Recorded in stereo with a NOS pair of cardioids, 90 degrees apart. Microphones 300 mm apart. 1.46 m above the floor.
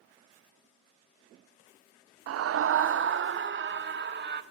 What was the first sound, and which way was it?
A scream, 55° right.